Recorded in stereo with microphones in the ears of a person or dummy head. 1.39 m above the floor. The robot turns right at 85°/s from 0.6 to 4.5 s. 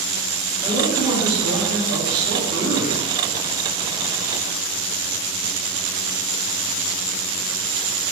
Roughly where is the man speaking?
Behind.